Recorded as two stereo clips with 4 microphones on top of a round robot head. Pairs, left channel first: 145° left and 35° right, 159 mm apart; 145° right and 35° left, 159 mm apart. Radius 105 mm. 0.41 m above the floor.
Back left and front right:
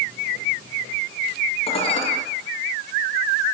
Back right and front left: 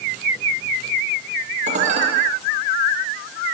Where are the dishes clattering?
85° left, 8.5 m.